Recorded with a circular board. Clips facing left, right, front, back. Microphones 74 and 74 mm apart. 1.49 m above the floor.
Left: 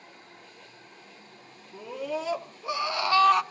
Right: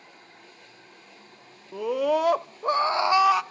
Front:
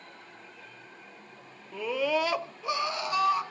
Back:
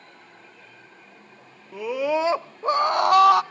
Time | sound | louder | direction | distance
1.7 | a scream | right 9 dB, back 4 dB | 100° right | 1.1 m